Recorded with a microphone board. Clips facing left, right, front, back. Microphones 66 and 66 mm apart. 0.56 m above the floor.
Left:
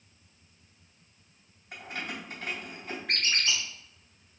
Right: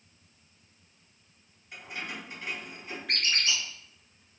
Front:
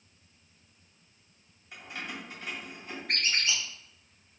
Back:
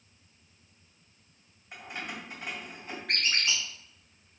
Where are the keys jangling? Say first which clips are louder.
Left 1 dB, back 1 dB; 115° left, 1.9 m.